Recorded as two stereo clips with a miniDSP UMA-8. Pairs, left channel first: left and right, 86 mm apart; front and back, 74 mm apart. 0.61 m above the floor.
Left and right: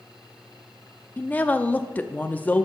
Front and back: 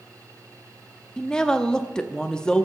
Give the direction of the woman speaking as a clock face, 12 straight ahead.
10 o'clock.